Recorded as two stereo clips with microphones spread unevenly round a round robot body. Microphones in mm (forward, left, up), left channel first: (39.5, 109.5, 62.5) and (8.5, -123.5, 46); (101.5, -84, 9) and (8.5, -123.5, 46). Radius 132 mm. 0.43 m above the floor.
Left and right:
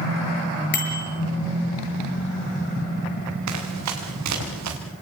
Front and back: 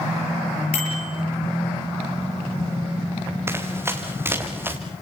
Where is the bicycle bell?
35° left, 7.5 m.